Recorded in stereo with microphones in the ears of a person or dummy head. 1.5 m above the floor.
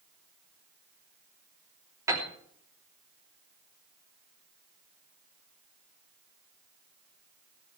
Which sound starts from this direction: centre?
A piano, at 2.1 s.